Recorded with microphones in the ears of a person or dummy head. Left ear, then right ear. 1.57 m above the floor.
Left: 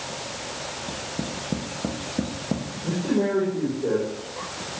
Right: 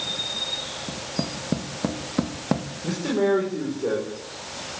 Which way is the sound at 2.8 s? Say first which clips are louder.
Right 2 dB; 55° right (ahead or behind).